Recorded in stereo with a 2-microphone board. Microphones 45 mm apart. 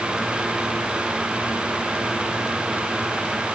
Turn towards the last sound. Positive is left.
No sound to turn to.